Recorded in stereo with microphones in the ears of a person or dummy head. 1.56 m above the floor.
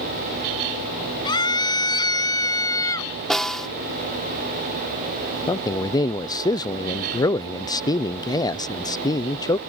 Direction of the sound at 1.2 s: 25° left (ahead or behind).